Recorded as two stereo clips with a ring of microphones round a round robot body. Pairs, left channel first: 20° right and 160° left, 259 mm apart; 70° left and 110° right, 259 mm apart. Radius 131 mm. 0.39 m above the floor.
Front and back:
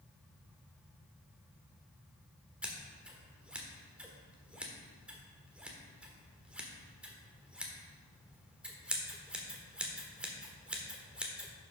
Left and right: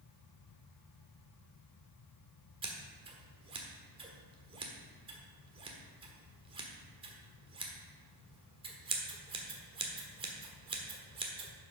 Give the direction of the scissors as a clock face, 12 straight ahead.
4 o'clock.